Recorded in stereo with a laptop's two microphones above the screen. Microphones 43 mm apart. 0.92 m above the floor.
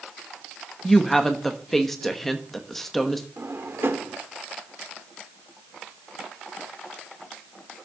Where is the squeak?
I don't hear a squeak.